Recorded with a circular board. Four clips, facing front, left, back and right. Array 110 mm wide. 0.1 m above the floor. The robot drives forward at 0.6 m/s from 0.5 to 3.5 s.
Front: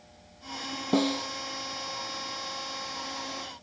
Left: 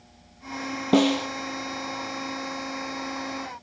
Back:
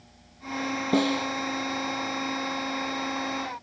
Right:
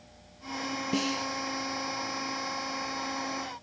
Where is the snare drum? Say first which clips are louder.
Left 12 dB, back 2 dB; 90° left; by 1.3 s 110° left.